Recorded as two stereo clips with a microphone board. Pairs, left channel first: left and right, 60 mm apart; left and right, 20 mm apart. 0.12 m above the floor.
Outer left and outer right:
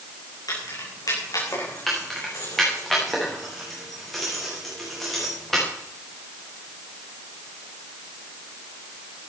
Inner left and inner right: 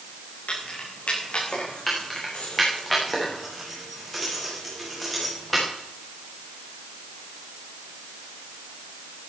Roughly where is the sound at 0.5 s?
Left.